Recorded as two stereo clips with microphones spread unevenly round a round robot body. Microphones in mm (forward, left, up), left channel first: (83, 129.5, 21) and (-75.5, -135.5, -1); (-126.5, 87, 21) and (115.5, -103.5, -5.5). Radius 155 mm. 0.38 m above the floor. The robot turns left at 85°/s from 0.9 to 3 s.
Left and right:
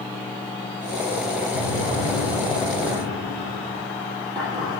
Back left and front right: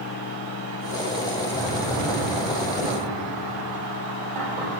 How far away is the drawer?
About 6 m.